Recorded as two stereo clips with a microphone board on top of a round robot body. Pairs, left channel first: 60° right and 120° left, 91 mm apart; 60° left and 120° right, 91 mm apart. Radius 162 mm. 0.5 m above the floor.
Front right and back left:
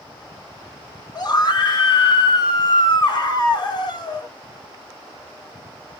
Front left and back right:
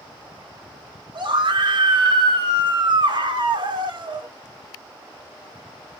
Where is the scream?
100° right, 1.5 m.